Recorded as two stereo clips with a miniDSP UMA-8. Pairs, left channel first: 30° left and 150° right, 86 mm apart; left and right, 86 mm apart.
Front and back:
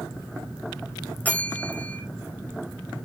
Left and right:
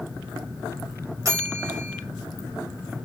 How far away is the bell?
About 4.5 m.